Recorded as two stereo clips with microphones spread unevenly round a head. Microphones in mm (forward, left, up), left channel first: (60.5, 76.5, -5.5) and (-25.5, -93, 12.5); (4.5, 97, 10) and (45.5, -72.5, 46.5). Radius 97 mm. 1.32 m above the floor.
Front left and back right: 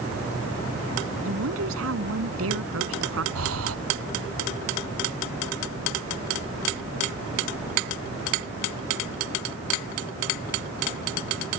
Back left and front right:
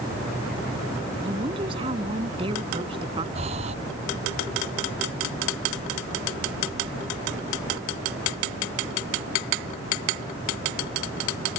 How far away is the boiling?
No boiling in this recording.